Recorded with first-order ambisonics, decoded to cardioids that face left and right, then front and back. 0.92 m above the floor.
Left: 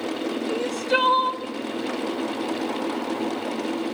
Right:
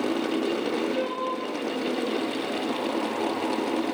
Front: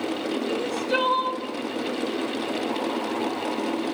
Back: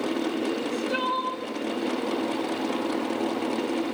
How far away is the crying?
About 2 m.